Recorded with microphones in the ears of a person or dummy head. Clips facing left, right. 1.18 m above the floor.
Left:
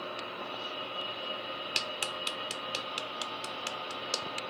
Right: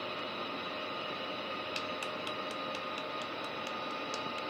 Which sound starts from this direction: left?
A clap, at 1.8 s.